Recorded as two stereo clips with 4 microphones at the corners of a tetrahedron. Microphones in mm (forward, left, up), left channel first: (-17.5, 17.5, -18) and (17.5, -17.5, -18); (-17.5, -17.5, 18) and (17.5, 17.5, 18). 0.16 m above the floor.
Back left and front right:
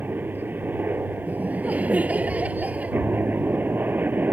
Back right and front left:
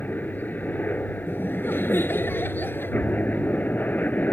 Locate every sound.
0.0 s a helicopter: 90° right
1.3 s laughter: 100° right